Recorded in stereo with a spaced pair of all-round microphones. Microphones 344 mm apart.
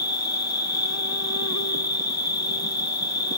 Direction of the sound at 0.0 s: 50° left (ahead or behind).